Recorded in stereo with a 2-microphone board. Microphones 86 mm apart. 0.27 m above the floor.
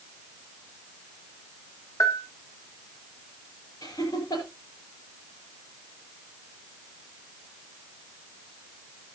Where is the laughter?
50° left (ahead or behind), 6.5 m.